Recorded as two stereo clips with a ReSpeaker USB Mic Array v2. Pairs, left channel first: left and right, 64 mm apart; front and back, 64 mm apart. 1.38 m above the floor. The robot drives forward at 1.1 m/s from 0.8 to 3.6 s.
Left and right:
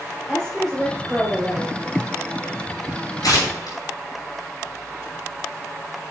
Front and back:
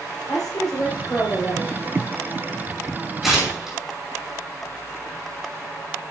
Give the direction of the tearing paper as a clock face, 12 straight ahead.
9 o'clock.